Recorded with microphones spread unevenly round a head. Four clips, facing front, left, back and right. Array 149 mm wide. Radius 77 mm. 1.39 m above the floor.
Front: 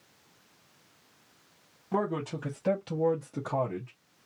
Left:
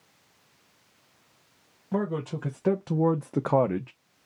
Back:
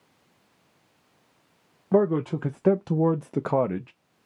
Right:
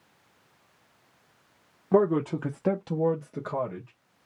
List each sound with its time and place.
1.9 s a man speaking: 145° right, 0.8 m; by 3.9 s 125° left, 0.7 m